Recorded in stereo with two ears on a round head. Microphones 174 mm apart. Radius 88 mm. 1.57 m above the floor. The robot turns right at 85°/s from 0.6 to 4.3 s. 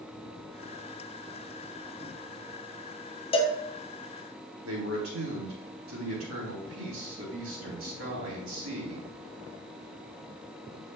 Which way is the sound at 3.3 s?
30° left (ahead or behind).